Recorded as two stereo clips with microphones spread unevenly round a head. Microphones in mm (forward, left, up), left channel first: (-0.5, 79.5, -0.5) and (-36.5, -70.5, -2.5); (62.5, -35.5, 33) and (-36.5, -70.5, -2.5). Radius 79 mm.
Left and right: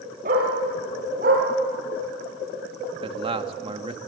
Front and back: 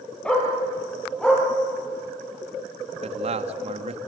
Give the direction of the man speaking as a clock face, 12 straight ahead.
5 o'clock.